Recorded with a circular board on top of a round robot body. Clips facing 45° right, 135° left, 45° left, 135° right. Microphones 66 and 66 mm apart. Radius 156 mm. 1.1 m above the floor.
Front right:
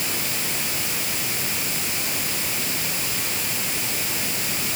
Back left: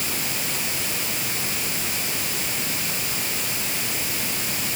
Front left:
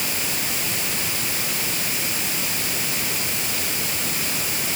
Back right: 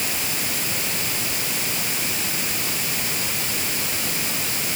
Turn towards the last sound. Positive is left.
No sound to turn to.